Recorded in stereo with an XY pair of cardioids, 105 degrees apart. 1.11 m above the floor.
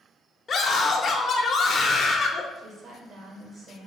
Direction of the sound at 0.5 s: 40° left.